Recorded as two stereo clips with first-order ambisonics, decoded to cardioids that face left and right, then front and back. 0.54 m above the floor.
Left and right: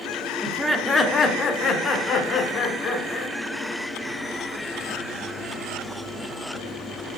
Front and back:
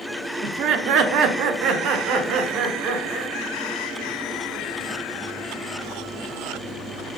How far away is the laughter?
About 0.7 m.